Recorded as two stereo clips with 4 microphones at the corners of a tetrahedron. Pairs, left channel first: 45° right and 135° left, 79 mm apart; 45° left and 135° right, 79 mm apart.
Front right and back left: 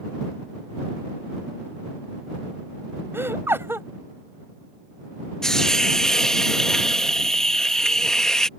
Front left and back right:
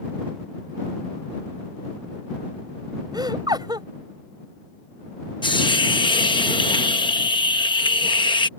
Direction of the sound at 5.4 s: 35° left.